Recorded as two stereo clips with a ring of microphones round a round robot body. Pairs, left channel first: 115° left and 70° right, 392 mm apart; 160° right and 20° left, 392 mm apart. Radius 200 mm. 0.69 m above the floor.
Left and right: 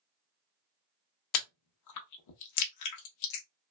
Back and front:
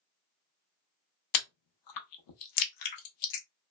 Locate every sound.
1.3 s chewing: 160° left, 0.6 m